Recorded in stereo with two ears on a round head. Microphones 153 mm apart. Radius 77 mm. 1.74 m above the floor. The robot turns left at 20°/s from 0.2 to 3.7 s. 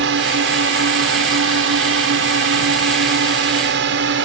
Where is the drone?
70° right (ahead or behind); by 4.2 s 75° right (ahead or behind).